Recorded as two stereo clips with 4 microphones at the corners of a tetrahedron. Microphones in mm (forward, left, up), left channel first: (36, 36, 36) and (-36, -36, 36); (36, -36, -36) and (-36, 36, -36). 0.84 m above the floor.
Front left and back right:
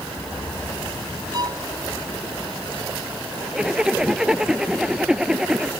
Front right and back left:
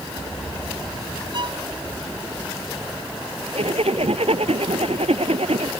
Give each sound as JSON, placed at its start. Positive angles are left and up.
{"t": 1.3, "sound": "a violin", "azimuth_deg": 175}
{"t": 3.5, "sound": "a zipper", "azimuth_deg": 140}